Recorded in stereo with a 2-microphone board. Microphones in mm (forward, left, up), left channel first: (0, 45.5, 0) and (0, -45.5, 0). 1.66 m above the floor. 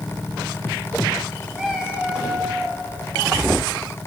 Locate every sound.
1.5 s a cat meowing: 10° right (ahead or behind), 6.5 m